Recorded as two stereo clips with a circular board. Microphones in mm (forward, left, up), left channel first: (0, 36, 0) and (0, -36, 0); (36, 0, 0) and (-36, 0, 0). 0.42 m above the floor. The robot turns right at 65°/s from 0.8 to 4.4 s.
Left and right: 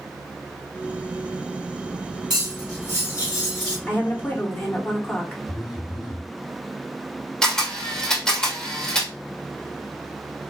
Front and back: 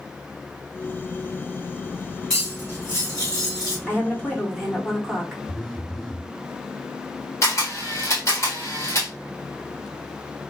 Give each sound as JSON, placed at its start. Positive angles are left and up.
{"t": 2.3, "sound": "cutlery clinking", "azimuth_deg": -85, "distance_m": 2.0}
{"t": 3.9, "sound": "a woman speaking", "azimuth_deg": 35, "distance_m": 1.0}
{"t": 5.5, "sound": "a phone buzzing", "azimuth_deg": 75, "distance_m": 0.8}
{"t": 7.4, "sound": "a camera shutter", "azimuth_deg": 15, "distance_m": 1.4}